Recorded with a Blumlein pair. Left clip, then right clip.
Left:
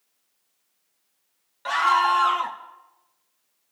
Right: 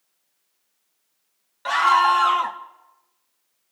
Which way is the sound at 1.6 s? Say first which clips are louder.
Right 3 dB; 10° right.